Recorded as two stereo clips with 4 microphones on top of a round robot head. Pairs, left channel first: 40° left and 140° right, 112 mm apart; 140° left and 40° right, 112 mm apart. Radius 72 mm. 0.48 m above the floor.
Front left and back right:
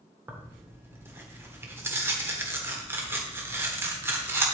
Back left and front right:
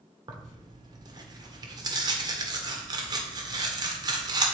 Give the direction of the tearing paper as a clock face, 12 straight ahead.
3 o'clock.